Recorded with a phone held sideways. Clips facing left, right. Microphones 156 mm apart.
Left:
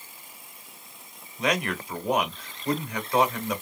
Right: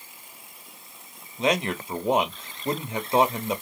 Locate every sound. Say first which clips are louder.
1.4 s a man speaking: right 3 dB; 25° right (ahead or behind), 0.7 m